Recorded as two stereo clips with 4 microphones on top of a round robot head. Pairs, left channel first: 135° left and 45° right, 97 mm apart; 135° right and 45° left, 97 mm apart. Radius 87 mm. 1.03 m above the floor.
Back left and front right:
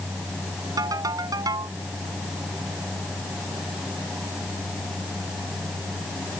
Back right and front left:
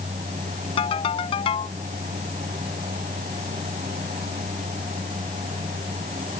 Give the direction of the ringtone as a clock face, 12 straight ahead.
3 o'clock.